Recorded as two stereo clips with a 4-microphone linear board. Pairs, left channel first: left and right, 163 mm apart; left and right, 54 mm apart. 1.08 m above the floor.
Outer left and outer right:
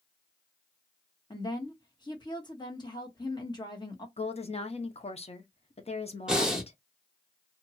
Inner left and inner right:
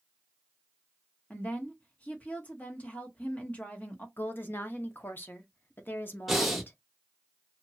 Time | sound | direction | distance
1.3 | a woman speaking | 25° left (ahead or behind) | 1.0 m
4.2 | a woman speaking | 40° left (ahead or behind) | 0.6 m
6.3 | breathing | 5° right (ahead or behind) | 0.9 m